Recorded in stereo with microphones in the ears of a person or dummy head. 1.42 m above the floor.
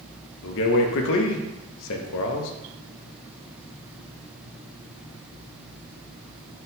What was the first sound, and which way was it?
A man speaking, 65° left (ahead or behind).